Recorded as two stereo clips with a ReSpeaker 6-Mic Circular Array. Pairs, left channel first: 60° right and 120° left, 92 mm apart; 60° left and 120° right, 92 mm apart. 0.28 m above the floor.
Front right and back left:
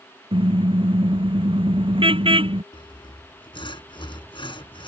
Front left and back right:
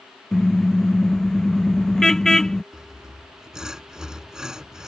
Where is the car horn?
145° left.